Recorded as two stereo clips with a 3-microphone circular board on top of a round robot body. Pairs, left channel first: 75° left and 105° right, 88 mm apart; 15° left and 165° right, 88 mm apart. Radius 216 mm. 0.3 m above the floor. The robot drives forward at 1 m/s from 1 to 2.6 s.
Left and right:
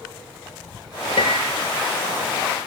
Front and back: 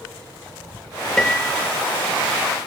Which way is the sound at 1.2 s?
95° left.